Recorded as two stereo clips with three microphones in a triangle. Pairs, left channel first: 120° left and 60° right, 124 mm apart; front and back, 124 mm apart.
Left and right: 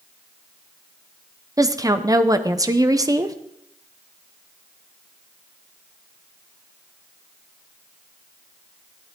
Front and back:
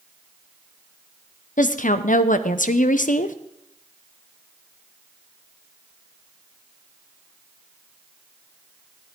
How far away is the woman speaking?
About 0.7 m.